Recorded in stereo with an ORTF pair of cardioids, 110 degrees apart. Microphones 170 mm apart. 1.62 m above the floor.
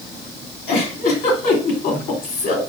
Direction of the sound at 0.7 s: 70° left.